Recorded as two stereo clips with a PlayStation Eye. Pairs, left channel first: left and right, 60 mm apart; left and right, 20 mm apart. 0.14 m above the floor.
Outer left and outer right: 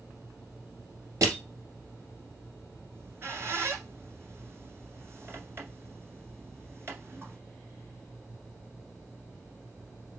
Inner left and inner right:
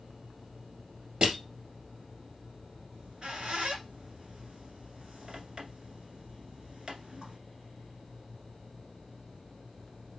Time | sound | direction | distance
1.2 | crushing | 55° right (ahead or behind) | 2.5 m
2.9 | a squeak | 40° right (ahead or behind) | 1.5 m